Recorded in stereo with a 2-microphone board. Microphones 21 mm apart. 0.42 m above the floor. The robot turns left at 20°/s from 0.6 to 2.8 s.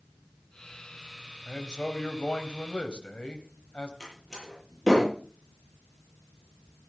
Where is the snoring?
No snoring in this recording.